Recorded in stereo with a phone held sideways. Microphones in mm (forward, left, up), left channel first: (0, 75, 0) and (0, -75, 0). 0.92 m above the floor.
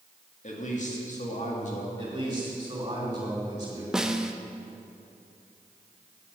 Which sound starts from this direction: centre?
A snare drum, at 3.9 s.